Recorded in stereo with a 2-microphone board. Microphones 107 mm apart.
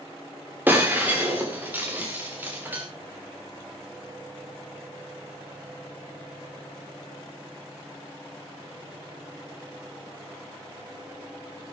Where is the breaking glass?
15° right (ahead or behind), 4 m.